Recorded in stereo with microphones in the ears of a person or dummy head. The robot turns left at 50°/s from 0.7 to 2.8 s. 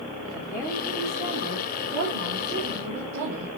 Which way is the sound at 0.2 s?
Straight ahead.